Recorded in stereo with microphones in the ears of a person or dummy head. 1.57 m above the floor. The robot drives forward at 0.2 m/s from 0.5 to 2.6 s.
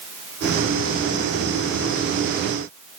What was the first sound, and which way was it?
Only background noise.